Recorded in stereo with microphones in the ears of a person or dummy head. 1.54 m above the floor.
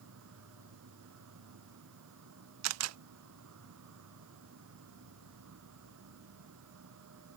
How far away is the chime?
No chime in this recording.